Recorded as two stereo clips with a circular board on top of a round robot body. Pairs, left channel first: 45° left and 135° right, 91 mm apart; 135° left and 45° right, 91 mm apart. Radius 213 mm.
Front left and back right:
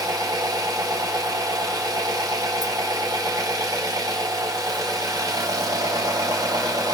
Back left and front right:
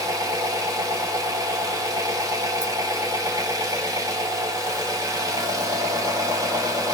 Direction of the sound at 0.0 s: 95° right.